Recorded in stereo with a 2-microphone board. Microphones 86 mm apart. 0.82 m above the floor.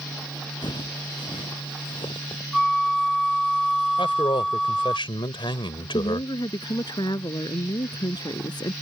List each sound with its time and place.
0.6 s footsteps: 65° left (ahead or behind); by 2.4 s 70° left (ahead or behind)
2.5 s a flute: centre (ahead or behind)
4.0 s a man speaking: 75° left (ahead or behind)
5.9 s a woman speaking: 55° left (ahead or behind)